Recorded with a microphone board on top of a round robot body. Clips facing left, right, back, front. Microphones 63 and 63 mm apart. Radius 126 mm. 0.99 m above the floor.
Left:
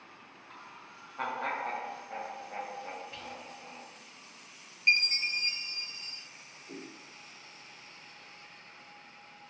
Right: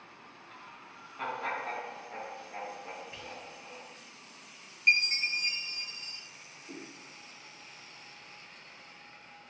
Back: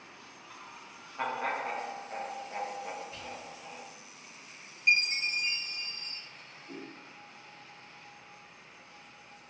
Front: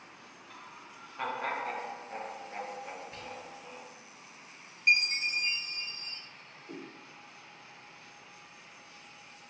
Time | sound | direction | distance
0.5 | laughter | 105° left | 1.4 m
3.1 | whispering | 20° right | 1.0 m
4.9 | a chime | 30° right | 1.0 m
6.7 | a whoosh | 65° left | 2 m